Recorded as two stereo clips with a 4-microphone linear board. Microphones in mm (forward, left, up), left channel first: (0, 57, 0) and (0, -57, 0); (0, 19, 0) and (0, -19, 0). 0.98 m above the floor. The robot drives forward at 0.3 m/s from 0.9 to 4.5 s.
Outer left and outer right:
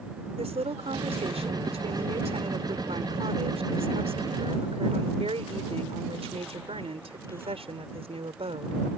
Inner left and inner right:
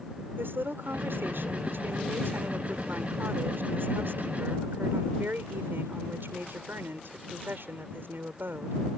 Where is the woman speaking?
80° right; by 8.8 s 70° right (ahead or behind).